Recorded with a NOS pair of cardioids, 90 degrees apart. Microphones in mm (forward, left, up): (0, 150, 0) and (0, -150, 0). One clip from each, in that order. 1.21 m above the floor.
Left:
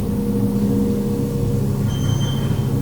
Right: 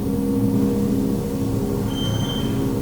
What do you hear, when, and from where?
0.0 s a machine running: 5° right, 5.5 m